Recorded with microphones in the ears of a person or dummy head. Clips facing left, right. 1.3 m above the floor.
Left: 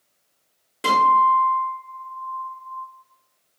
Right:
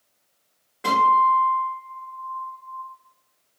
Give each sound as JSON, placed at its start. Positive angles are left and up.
{"t": 0.8, "sound": "a guitar", "side_deg": 50, "distance_m": 1.2}